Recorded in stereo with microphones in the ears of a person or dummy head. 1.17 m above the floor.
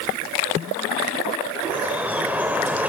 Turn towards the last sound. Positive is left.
turn(degrees=-5)  # may be behind; listen again after turning